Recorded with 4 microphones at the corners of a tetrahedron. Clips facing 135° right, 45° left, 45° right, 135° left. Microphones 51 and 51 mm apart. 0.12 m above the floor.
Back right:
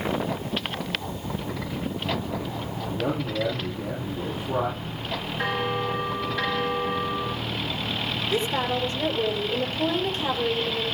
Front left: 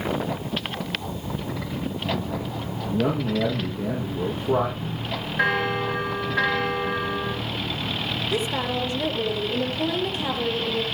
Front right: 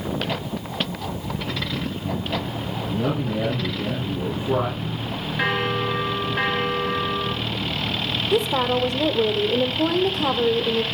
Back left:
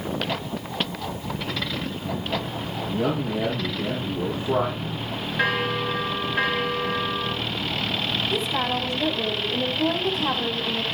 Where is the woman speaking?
40° right, 3.5 m.